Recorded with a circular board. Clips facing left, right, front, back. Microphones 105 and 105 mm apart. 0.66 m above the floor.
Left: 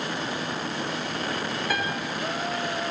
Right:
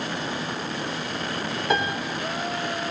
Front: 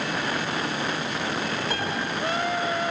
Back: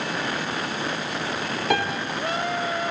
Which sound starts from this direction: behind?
A piano, at 1.7 s.